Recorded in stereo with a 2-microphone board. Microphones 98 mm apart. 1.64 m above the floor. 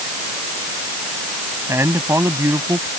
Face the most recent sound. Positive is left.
turn(degrees=-25)  # may be behind; listen again after turning